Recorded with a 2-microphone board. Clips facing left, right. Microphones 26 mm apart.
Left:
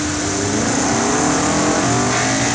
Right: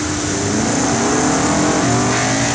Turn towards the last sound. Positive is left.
No sound to turn to.